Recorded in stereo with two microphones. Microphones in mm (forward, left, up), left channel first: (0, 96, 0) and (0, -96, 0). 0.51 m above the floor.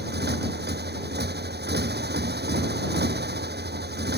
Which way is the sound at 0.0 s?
60° right (ahead or behind).